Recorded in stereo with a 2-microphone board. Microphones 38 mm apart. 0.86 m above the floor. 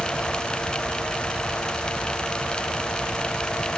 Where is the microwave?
I don't hear a microwave.